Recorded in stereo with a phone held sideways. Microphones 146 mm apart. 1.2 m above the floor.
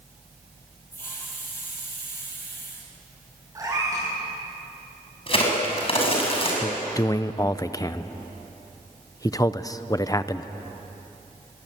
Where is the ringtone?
No ringtone in this recording.